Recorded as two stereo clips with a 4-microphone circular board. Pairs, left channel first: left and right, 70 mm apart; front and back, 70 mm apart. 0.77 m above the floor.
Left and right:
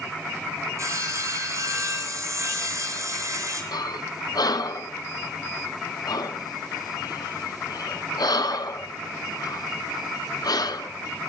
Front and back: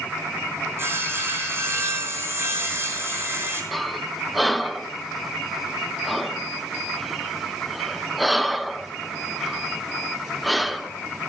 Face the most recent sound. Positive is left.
turn(degrees=90)